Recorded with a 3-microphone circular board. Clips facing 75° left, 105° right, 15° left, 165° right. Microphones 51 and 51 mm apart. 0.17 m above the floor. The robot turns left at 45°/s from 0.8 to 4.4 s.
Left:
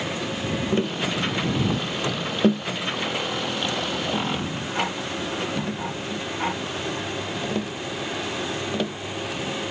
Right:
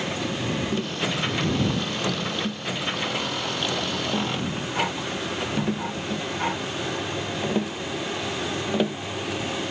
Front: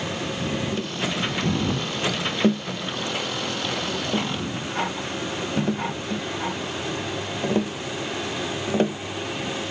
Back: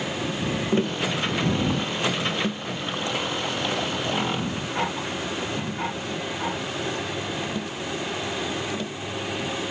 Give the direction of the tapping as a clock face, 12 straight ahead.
7 o'clock.